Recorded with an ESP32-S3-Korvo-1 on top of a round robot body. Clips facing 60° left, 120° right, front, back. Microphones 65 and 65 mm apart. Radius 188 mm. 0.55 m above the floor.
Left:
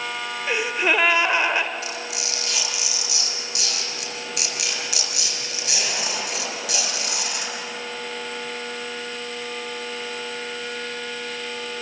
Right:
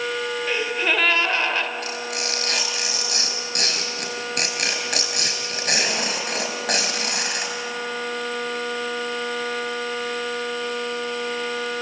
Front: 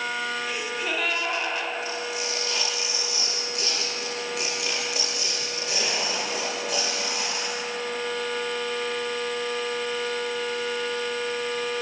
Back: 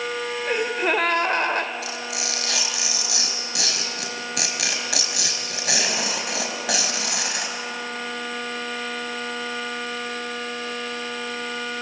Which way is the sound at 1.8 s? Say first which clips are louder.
Right 3 dB, even; 165° right.